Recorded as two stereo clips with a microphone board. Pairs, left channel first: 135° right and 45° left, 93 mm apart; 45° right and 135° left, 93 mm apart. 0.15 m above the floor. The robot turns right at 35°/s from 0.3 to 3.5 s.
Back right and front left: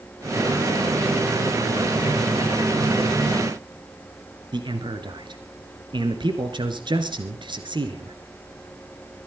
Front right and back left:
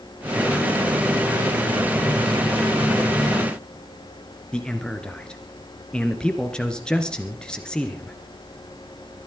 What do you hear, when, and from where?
4.5 s a man speaking: 35° left, 2 m